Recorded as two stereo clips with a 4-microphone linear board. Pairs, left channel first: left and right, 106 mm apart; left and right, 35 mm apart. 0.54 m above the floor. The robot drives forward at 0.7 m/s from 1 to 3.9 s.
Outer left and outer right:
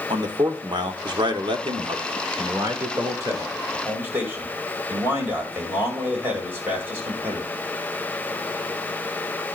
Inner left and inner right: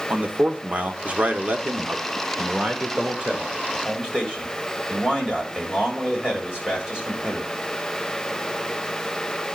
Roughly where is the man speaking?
Right.